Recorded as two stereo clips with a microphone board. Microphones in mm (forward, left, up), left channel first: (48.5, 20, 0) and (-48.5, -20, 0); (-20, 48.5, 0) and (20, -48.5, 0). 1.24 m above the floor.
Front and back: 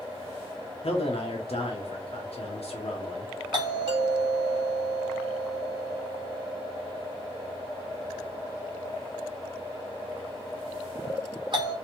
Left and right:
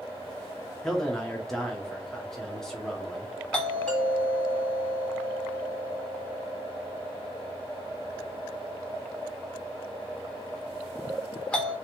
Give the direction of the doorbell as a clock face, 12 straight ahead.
6 o'clock.